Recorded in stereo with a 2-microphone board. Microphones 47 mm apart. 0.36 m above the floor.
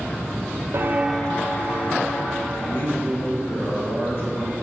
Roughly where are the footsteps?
Right.